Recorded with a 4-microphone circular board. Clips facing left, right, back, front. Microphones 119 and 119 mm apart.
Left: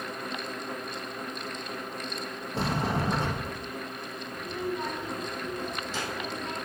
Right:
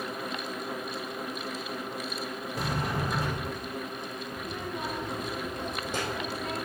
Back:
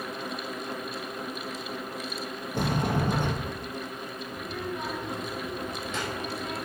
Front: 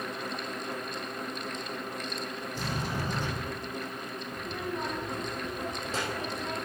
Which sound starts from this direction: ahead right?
A child speaking, at 4.3 s.